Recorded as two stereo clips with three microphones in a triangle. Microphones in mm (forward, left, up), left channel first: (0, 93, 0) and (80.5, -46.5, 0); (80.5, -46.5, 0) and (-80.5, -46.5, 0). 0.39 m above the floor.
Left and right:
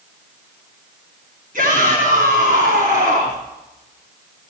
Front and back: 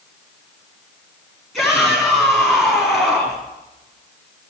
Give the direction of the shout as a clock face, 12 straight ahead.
3 o'clock.